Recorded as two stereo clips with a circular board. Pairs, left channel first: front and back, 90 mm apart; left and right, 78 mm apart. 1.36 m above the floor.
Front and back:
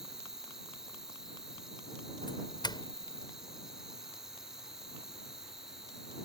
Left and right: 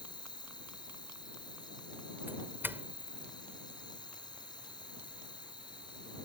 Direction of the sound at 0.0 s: 95° left.